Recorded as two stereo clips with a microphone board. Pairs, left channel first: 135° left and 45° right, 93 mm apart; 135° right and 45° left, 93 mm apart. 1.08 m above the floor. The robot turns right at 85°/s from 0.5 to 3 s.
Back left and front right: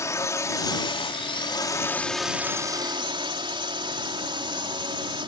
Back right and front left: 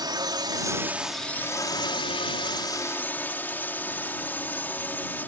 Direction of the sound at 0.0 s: 80° left.